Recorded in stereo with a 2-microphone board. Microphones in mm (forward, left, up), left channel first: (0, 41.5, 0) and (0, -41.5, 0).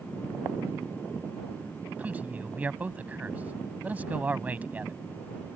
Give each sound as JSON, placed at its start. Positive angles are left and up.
{"t": 2.0, "sound": "a man speaking", "side_deg": -20}